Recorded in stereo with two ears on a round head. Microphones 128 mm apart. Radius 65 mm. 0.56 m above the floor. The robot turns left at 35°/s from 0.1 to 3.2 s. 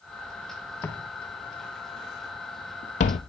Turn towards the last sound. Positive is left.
turn(degrees=45)  # may be behind; listen again after turning